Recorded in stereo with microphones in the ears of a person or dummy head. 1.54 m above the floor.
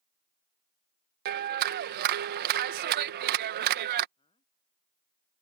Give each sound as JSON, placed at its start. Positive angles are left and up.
{"t": 1.2, "sound": "a clap", "side_deg": -55}
{"t": 4.2, "sound": "a man speaking", "side_deg": 30}